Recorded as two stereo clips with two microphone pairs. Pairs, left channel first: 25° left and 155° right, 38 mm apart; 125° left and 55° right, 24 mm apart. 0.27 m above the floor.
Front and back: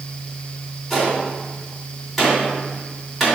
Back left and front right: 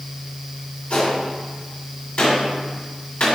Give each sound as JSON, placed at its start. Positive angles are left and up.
{"t": 0.9, "sound": "a gunshot", "azimuth_deg": 115, "distance_m": 2.5}